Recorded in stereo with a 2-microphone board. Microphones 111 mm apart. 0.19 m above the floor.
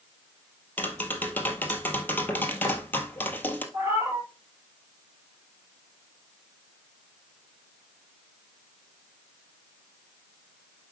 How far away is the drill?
I don't hear a drill.